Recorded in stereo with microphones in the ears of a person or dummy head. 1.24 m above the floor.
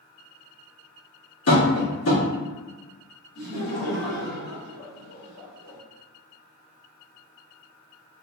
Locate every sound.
1.5 s tapping: 75° left (ahead or behind), 2.0 m
3.4 s laughter: 80° left, 1.4 m